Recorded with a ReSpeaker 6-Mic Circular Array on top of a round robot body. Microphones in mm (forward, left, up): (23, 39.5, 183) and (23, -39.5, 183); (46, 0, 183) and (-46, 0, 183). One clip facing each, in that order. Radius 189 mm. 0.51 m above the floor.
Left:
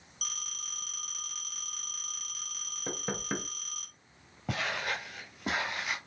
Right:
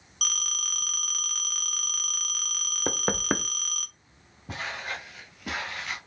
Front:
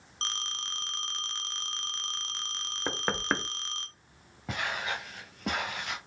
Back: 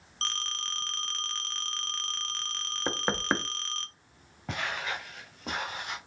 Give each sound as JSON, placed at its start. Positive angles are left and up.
{"t": 0.2, "sound": "a phone ringing", "azimuth_deg": -70, "distance_m": 0.8}
{"t": 2.9, "sound": "knocking", "azimuth_deg": -100, "distance_m": 0.7}
{"t": 4.5, "sound": "footsteps", "azimuth_deg": 90, "distance_m": 0.8}